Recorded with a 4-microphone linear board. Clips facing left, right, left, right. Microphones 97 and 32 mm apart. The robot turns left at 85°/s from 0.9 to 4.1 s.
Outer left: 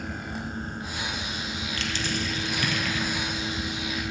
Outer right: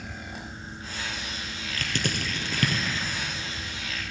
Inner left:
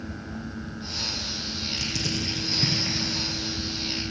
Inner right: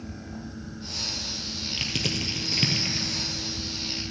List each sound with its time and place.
1.8 s crushing: 45° right (ahead or behind), 2.5 m; by 3.1 s 20° right (ahead or behind), 2.5 m